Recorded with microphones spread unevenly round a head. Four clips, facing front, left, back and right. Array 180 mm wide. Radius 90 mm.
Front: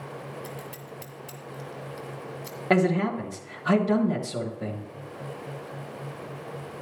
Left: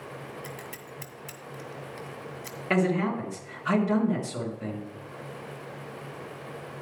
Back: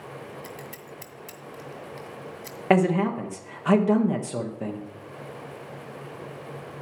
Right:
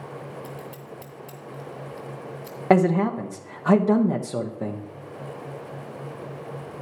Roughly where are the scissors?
Left.